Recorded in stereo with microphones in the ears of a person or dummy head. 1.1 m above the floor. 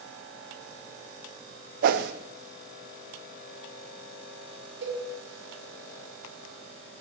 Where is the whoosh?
50° right (ahead or behind), 0.6 m.